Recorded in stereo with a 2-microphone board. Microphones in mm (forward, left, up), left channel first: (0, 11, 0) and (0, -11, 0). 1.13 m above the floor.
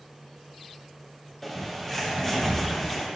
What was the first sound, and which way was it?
A bird, 15° left (ahead or behind).